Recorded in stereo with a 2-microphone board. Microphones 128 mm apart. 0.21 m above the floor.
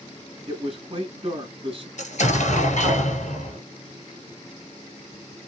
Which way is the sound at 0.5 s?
45° right (ahead or behind).